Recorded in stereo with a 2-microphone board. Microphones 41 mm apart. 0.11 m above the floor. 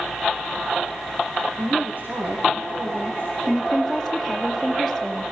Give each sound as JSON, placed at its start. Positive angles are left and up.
{"t": 1.6, "sound": "a woman speaking", "side_deg": -45, "distance_m": 6.0}
{"t": 3.5, "sound": "a woman speaking", "side_deg": -5, "distance_m": 3.5}